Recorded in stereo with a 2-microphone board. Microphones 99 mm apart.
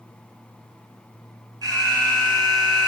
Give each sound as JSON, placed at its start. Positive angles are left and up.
{"t": 1.6, "sound": "an alarm", "side_deg": -45, "distance_m": 1.5}